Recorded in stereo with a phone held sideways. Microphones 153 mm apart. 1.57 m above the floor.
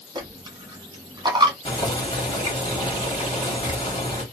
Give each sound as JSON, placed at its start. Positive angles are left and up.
{"t": 0.1, "sound": "a dropped coin", "side_deg": -30, "distance_m": 1.0}
{"t": 1.6, "sound": "boiling", "side_deg": 35, "distance_m": 1.6}